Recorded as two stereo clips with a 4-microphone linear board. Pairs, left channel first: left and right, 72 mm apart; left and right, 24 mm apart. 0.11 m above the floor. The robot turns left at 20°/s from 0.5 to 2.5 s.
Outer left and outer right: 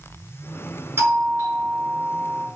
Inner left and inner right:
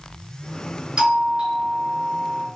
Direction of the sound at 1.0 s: 30° right (ahead or behind).